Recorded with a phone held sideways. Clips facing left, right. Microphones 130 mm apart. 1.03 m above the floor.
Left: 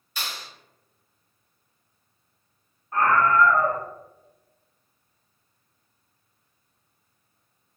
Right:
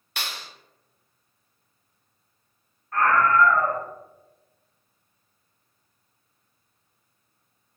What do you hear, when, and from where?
0.2 s a clap: 70° right (ahead or behind), 0.6 m
2.9 s a scream: 20° left (ahead or behind), 0.5 m